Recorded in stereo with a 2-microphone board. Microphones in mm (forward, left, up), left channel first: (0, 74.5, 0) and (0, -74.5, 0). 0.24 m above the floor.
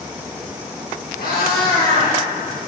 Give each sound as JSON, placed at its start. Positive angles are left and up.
{"t": 1.2, "sound": "a cat meowing", "side_deg": 85, "distance_m": 4.0}